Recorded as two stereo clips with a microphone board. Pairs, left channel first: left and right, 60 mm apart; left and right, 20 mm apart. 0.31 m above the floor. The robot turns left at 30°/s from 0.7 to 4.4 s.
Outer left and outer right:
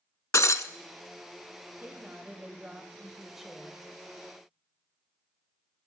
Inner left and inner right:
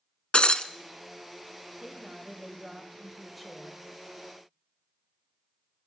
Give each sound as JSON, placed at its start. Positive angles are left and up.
{"t": 0.3, "sound": "breaking glass", "side_deg": 60, "distance_m": 0.5}
{"t": 1.8, "sound": "a woman speaking", "azimuth_deg": -120, "distance_m": 1.5}